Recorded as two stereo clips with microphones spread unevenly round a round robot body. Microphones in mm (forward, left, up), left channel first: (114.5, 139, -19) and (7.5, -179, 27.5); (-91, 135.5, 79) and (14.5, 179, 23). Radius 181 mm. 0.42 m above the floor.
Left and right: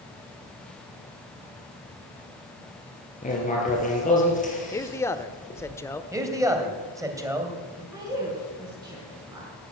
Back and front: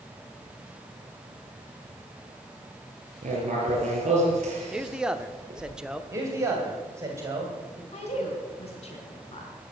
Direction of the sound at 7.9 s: 170° left.